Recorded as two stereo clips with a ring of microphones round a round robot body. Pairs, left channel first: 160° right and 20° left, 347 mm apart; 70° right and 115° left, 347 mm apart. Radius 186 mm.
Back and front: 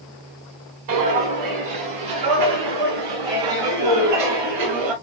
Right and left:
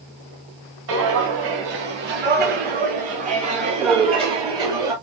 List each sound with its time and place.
0.9 s footsteps: 60° left, 4.5 m; by 4.9 s 30° left, 4.5 m